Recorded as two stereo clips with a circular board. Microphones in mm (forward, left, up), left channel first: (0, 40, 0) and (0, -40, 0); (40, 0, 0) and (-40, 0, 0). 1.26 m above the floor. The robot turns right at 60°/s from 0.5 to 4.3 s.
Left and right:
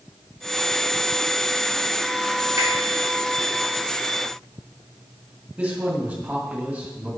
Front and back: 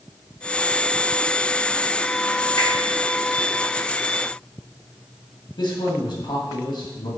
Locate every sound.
2.6 s a finger snap: 45° right, 2.5 m; by 2.7 s 40° right, 2.5 m
5.6 s a man speaking: 15° right, 2 m